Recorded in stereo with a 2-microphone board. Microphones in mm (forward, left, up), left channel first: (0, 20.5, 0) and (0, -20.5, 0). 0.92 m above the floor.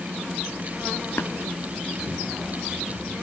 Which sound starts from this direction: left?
Tapping, at 1.2 s.